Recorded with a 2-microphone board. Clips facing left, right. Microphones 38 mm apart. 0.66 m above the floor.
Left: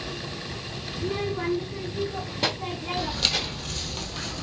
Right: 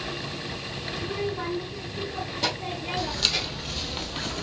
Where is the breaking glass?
I don't hear breaking glass.